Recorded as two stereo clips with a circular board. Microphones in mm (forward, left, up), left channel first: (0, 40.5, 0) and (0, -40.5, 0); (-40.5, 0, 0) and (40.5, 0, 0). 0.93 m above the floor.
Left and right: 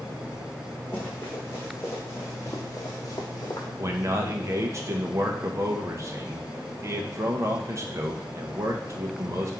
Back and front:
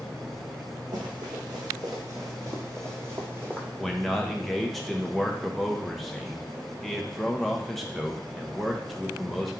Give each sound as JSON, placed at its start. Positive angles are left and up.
{"t": 0.9, "sound": "running footsteps", "azimuth_deg": 25, "distance_m": 3.0}
{"t": 3.8, "sound": "a man speaking", "azimuth_deg": -95, "distance_m": 1.0}